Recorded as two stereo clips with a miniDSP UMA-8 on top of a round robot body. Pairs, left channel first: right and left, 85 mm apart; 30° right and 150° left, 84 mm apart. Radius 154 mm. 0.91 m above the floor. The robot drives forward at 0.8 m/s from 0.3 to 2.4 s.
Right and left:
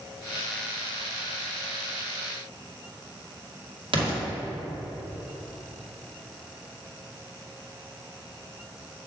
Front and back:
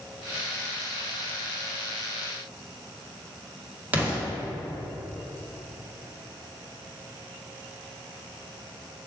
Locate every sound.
3.9 s an explosion: 80° left, 2.5 m